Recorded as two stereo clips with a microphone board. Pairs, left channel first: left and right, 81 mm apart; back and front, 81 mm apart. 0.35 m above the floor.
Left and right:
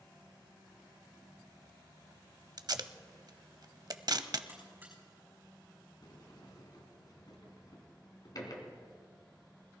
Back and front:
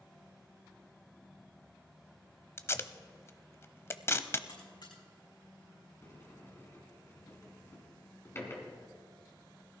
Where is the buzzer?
155° right, 6.5 m.